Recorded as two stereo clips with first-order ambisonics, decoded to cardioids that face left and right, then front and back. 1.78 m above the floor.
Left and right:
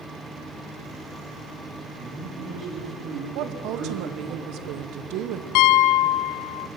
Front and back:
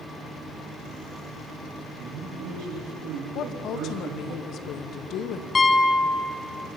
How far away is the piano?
About 0.7 m.